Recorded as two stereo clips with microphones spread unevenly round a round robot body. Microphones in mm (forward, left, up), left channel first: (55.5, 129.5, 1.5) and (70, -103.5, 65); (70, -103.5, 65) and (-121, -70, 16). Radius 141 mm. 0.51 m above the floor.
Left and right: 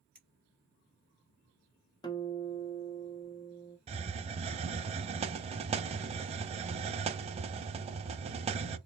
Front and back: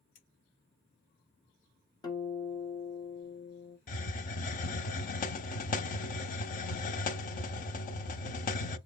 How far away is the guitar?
About 1.3 m.